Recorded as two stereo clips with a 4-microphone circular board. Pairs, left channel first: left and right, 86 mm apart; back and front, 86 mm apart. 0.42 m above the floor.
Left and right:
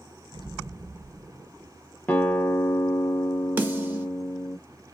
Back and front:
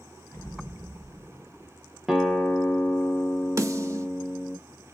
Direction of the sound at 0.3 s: 125° right.